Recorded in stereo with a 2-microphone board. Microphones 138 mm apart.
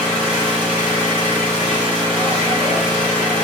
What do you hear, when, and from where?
0.0 s an engine running: 10° right (ahead or behind), 1.6 m